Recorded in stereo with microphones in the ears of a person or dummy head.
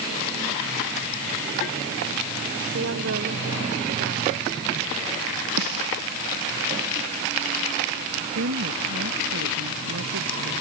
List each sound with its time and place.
2.7 s a woman speaking: 70° right (ahead or behind)
5.6 s a snare drum: 80° right
8.3 s a woman speaking: 70° right (ahead or behind)